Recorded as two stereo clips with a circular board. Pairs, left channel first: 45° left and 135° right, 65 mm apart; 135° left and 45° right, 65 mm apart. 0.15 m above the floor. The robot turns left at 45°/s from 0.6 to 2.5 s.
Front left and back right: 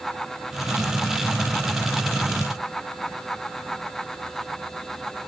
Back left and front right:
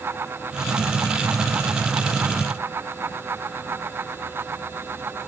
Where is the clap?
I don't hear a clap.